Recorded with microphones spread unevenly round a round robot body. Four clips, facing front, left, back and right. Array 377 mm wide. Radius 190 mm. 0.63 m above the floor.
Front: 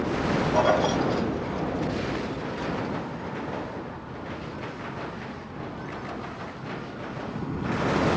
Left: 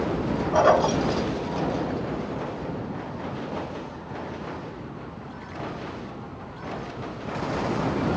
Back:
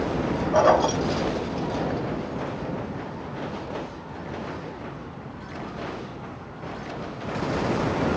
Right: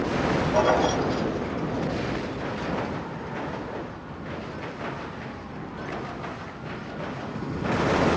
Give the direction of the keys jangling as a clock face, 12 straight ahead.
8 o'clock.